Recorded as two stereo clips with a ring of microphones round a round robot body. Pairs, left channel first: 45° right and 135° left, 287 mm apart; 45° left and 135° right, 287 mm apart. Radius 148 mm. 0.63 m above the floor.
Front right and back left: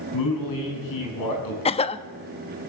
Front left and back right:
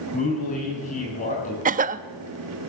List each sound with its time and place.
0.1 s a man speaking: 20° right, 7 m
1.6 s a cough: 95° right, 0.6 m